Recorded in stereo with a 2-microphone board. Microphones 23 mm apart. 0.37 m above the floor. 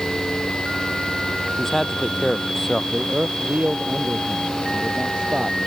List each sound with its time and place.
1.6 s a man speaking: 20° left (ahead or behind)
2.9 s a man speaking: 45° right (ahead or behind)